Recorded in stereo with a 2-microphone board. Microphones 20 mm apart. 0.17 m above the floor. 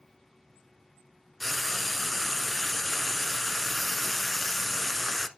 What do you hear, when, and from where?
1.4 s frying: 5° left (ahead or behind), 0.8 m